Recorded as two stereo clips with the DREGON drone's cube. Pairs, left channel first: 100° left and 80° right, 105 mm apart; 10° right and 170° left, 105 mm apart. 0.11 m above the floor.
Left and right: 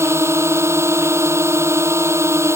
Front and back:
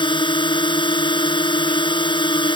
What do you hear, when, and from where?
0.0 s a drone: 25° right